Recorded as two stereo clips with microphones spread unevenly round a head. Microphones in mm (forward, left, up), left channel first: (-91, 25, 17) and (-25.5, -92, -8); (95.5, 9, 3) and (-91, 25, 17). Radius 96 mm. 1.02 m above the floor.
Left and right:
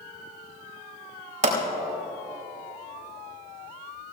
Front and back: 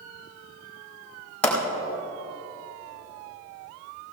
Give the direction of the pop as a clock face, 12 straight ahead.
3 o'clock.